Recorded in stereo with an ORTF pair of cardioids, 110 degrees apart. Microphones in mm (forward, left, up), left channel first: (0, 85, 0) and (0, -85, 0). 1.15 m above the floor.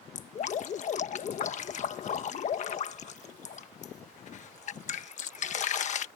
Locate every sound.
0.1 s dripping: 45° left